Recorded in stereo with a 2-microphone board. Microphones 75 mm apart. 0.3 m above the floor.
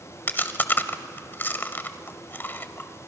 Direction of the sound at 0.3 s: 30° left (ahead or behind).